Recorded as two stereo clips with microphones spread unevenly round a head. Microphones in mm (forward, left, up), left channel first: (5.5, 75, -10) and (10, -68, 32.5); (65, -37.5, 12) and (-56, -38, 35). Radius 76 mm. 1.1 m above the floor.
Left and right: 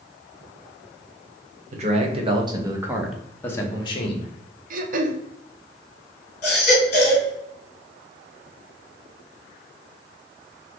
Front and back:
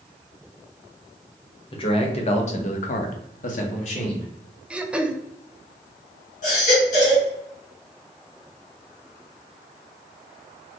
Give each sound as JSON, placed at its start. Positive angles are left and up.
{"t": 1.7, "sound": "a man speaking", "azimuth_deg": -45, "distance_m": 1.4}
{"t": 4.7, "sound": "throat clearing", "azimuth_deg": -90, "distance_m": 0.6}
{"t": 6.4, "sound": "a baby crying", "azimuth_deg": 45, "distance_m": 2.0}